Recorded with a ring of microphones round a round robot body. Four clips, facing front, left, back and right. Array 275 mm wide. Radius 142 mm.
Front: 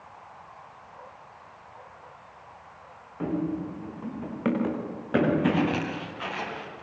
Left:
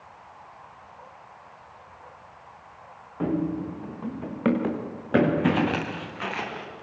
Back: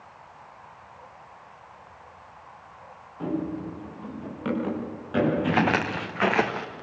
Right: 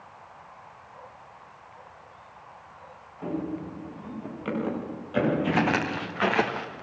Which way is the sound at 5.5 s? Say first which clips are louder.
Right 1 dB, back 3 dB; 165° right.